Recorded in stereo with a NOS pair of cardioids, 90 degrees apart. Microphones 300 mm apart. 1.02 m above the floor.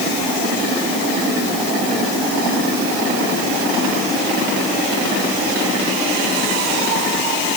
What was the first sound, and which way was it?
Only background noise.